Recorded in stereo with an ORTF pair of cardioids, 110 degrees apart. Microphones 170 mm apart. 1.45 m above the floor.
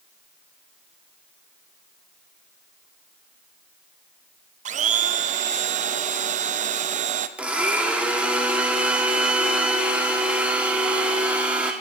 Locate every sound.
4.7 s a blender: 45° right, 0.6 m
7.4 s a blender: 10° right, 1.4 m